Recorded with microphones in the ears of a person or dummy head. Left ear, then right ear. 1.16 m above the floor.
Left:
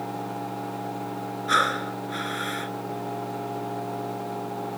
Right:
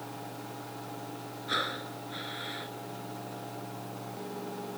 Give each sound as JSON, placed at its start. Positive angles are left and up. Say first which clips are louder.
{"t": 1.5, "sound": "breathing", "louder": "left 10 dB", "side_deg": 35}